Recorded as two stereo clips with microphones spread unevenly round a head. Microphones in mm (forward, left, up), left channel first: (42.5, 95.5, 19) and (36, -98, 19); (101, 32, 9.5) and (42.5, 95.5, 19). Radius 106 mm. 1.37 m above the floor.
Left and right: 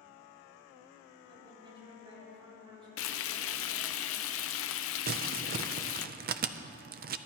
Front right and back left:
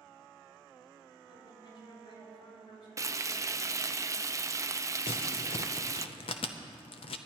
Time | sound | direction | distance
1.3 | a woman speaking | 25° right | 5.5 m
3.0 | frying | 75° left | 0.6 m
5.1 | crumpling | 55° right | 0.5 m